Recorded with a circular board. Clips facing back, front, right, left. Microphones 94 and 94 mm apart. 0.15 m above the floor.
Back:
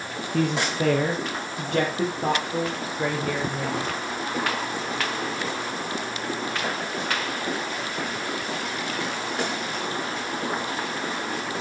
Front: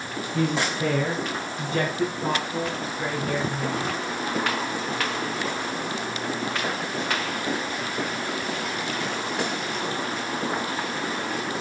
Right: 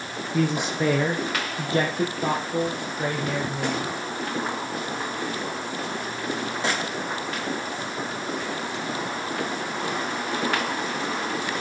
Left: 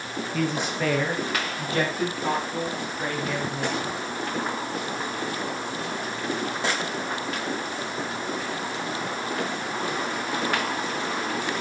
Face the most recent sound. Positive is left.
turn(degrees=-140)